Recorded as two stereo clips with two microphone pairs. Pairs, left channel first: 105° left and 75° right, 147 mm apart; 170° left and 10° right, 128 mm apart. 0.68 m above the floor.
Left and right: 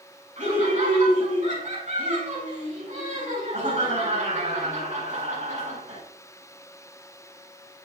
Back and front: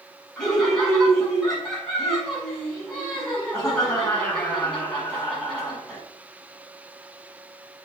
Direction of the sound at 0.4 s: 105° right.